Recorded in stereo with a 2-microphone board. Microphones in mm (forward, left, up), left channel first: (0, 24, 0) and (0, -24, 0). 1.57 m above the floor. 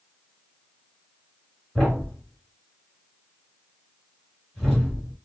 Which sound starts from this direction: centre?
A thud, at 1.8 s.